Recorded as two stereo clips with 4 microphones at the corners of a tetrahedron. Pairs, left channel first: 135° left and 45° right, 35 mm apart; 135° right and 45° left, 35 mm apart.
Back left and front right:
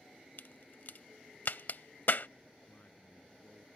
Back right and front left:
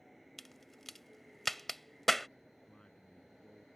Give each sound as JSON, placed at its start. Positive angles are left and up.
{"t": 0.4, "sound": "a crack", "azimuth_deg": 135}
{"t": 2.6, "sound": "a man speaking", "azimuth_deg": 160}